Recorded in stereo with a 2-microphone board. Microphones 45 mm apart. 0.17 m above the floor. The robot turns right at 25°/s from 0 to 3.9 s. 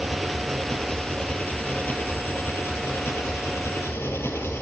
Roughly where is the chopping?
No chopping in this recording.